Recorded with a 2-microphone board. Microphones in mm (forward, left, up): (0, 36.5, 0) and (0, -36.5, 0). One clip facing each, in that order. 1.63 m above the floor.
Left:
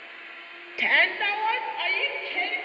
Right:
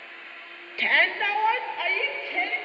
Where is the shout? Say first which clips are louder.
Even; 10° left (ahead or behind), 0.5 m; by 2.6 s 15° right (ahead or behind), 2 m.